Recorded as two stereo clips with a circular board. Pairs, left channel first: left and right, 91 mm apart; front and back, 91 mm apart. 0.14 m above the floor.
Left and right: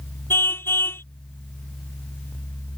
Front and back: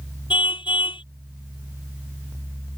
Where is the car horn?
25° left.